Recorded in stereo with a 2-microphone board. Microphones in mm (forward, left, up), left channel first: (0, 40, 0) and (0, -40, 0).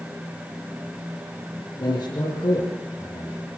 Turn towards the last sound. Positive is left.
turn(degrees=75)  # may be behind; listen again after turning